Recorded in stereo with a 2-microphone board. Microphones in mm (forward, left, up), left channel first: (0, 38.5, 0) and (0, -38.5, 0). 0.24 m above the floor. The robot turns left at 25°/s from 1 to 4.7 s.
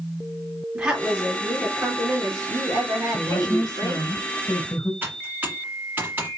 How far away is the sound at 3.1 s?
About 2 m.